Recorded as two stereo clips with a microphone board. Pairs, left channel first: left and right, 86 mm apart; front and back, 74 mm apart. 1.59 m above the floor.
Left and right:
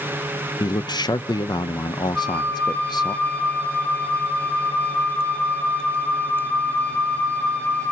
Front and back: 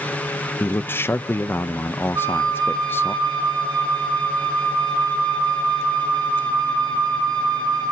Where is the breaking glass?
I don't hear breaking glass.